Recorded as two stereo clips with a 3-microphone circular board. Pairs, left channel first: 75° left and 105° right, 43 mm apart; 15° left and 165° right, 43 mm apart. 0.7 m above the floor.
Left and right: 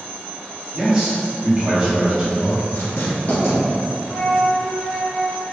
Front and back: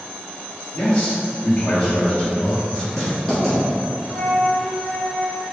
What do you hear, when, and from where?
0.7 s a man speaking: 25° right, 1.4 m
2.7 s writing: 95° left, 1.8 m
4.1 s a flute: 60° left, 0.7 m